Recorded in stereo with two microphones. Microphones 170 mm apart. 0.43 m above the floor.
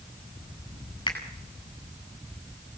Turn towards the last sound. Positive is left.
turn(degrees=25)  # may be behind; listen again after turning